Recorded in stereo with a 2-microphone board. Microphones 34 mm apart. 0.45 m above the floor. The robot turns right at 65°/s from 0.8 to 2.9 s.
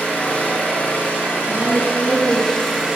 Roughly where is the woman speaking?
Ahead right.